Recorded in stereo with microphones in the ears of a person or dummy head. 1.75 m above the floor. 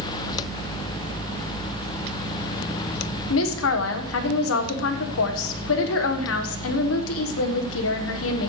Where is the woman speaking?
80° left, 1.4 m.